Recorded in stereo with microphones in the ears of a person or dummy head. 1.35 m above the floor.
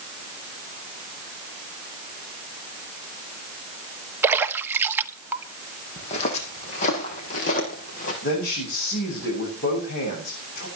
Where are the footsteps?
35° left (ahead or behind), 5 m; by 8.1 s 45° left (ahead or behind), 5.5 m.